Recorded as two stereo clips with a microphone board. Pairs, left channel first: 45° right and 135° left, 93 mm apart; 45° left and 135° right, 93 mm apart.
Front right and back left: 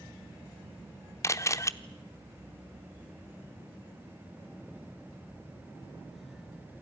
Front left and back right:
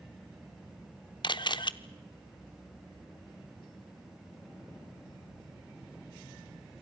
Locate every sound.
1.2 s a camera shutter: 10° left, 0.8 m